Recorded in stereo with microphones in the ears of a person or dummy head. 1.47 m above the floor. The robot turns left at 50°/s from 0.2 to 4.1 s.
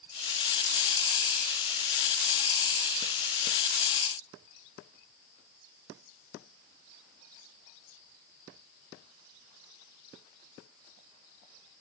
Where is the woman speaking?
No woman speaking in this recording.